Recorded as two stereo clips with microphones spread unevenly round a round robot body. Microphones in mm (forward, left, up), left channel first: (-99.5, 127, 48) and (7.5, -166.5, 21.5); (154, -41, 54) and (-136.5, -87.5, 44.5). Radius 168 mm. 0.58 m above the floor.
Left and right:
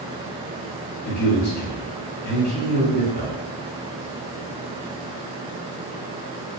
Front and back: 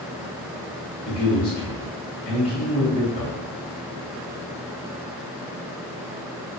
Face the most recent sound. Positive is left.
turn(degrees=70)